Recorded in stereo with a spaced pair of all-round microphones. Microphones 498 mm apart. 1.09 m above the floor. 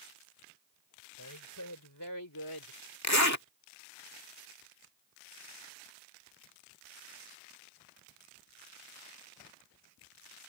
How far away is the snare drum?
No snare drum in this recording.